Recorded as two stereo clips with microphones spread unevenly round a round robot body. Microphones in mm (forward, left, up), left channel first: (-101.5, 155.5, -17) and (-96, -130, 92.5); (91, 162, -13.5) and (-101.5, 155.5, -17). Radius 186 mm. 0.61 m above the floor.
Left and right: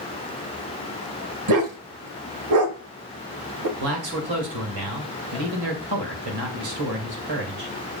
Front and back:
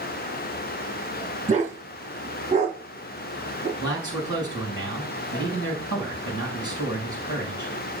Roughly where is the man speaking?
Ahead right.